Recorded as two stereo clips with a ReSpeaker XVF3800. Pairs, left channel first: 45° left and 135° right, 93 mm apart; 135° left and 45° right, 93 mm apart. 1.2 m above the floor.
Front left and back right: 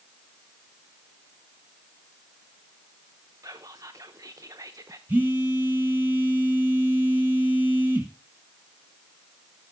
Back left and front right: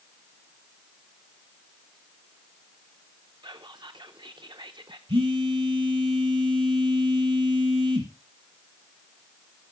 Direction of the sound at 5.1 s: 65° right.